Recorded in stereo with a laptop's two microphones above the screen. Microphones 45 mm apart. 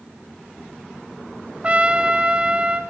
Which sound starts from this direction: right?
A trumpet, at 1.6 s.